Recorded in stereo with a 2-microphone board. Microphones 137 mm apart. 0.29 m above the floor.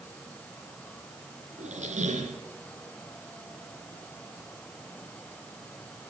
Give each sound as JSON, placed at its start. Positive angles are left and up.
{"t": 1.6, "sound": "a squeak", "side_deg": -65, "distance_m": 2.0}